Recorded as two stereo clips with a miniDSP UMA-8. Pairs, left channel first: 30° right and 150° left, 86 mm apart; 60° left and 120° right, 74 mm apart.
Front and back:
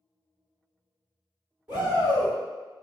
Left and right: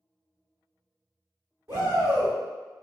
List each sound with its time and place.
1.7 s a shout: 155° right, 1.5 m